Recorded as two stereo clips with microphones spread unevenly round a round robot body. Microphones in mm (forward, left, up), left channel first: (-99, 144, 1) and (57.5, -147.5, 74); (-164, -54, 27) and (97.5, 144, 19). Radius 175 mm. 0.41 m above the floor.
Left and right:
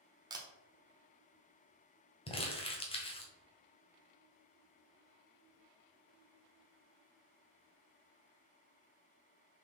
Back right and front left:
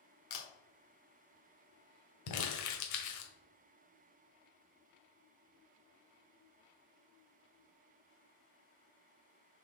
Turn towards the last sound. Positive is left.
turn(degrees=-175)